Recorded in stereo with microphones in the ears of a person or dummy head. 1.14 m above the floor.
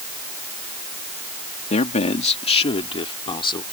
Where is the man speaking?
40° left (ahead or behind); by 3.6 s 30° left (ahead or behind).